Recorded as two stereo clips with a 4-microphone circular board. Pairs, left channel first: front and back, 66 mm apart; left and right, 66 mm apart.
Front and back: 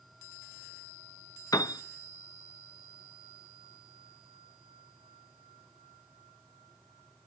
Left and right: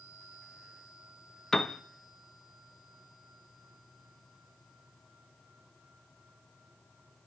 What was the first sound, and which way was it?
A piano, 10° left.